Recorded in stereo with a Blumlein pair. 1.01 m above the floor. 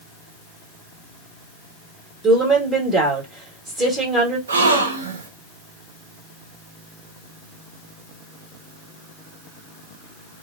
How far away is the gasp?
About 0.6 m.